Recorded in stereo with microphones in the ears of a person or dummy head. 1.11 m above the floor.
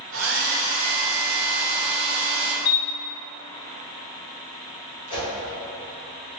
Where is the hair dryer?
65° right (ahead or behind), 1.0 m.